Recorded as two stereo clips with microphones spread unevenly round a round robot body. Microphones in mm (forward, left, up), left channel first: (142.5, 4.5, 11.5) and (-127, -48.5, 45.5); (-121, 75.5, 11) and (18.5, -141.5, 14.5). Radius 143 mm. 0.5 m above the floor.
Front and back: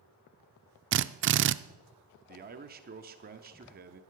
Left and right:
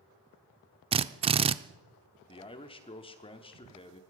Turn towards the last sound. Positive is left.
turn(degrees=165)